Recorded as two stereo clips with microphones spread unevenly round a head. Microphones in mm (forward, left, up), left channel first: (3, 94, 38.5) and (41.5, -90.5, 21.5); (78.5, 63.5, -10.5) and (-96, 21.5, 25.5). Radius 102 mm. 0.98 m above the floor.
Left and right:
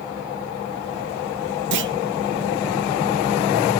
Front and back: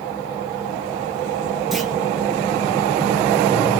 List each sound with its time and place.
1.7 s a clunk: 75° right, 0.9 m